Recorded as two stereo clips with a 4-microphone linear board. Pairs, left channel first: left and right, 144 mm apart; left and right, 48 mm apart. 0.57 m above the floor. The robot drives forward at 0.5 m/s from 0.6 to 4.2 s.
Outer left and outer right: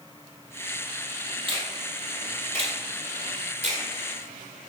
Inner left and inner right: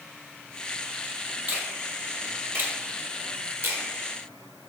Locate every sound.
1.5 s a finger snap: 40° right (ahead or behind), 2.5 m; by 3.8 s 60° right (ahead or behind), 1.8 m